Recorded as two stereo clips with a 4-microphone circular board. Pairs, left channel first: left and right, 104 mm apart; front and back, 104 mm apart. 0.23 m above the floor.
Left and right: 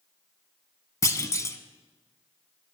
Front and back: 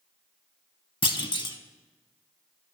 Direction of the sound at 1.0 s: 35° left.